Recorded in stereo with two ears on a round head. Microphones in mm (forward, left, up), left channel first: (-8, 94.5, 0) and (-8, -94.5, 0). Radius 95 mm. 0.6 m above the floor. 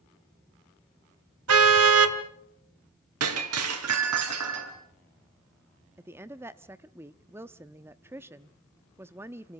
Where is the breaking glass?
80° right, 3.5 m.